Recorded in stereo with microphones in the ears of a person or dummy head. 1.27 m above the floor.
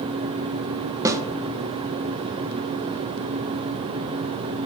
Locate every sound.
1.1 s a snare drum: 15° right (ahead or behind), 0.9 m